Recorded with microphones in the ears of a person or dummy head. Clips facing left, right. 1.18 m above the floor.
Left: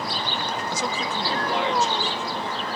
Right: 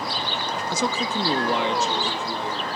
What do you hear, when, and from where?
0.7 s a man speaking: 70° right (ahead or behind), 0.5 m; by 2.8 s 85° right, 2.5 m